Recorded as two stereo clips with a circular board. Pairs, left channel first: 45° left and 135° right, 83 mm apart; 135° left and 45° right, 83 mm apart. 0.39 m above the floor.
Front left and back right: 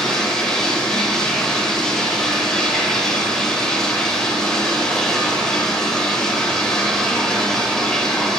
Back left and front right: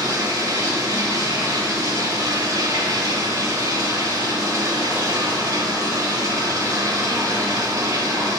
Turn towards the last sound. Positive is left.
turn(degrees=-35)